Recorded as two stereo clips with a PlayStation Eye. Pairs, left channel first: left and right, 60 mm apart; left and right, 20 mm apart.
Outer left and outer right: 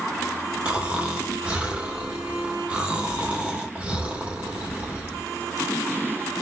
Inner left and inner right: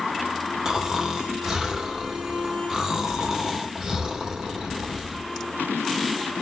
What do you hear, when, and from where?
0.7 s snoring: 20° right (ahead or behind), 1.3 m